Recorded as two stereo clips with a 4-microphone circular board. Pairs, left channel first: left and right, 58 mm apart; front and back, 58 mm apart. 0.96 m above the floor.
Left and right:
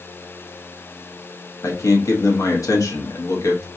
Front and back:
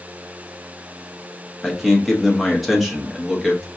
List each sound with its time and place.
1.6 s a man speaking: 90° left, 0.8 m